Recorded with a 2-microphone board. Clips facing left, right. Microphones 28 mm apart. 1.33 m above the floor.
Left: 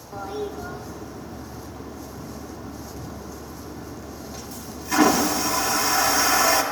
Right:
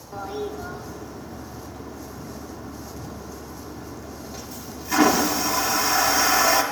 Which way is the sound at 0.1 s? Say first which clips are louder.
Even; 5° right (ahead or behind).